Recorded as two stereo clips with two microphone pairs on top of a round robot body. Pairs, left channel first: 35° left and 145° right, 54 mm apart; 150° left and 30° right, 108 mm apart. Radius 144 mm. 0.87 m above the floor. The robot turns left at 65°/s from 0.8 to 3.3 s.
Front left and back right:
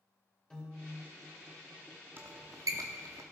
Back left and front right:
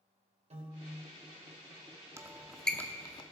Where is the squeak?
95° right, 0.7 m; by 3.2 s 165° right, 0.7 m.